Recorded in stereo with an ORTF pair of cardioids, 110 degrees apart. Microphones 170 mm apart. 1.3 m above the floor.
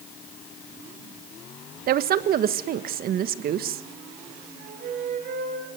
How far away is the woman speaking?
About 1.4 m.